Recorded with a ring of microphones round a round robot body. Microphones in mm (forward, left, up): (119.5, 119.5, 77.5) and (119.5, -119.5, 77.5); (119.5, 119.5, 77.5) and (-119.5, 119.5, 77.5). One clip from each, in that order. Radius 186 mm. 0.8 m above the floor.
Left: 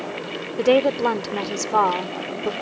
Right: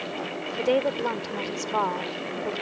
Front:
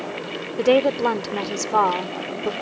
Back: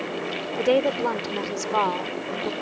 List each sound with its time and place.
0.6 s a woman speaking: 50° left